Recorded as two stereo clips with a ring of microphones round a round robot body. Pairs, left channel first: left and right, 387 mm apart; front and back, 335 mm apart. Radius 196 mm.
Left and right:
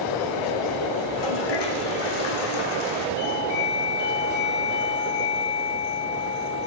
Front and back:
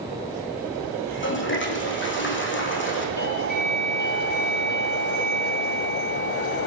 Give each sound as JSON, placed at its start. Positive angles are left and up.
{"t": 1.0, "sound": "a toilet flushing", "azimuth_deg": 60, "distance_m": 5.0}
{"t": 3.2, "sound": "a doorbell", "azimuth_deg": 60, "distance_m": 8.5}